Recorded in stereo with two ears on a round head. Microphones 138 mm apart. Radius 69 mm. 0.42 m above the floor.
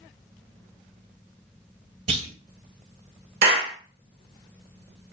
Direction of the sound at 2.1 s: 40° right (ahead or behind).